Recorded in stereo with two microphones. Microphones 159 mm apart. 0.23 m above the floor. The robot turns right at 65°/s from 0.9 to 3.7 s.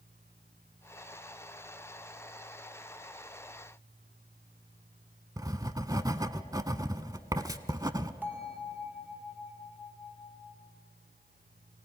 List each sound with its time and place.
5.4 s writing: 25° right (ahead or behind), 0.7 m
8.2 s a bell: 10° right (ahead or behind), 2.0 m